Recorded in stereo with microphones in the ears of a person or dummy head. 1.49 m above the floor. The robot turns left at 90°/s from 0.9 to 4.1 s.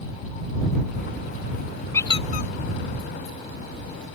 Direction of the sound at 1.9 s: 15° left (ahead or behind).